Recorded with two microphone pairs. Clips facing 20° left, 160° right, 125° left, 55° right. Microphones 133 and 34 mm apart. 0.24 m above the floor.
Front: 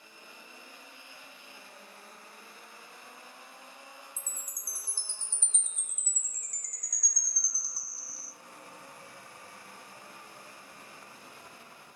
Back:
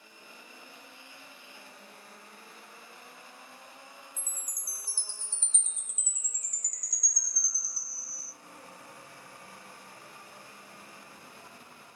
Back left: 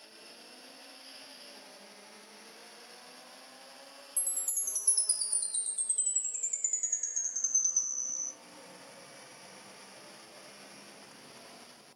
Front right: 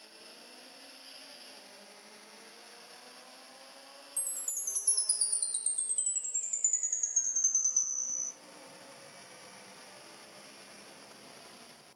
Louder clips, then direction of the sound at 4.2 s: Even, front right 1 dB; 40° left.